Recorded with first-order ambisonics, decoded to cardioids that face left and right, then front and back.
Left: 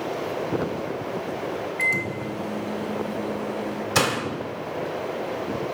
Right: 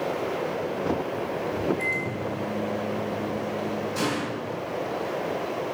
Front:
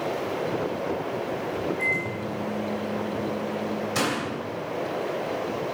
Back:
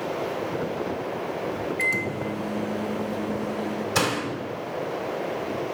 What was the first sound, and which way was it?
A microwave, 140° left.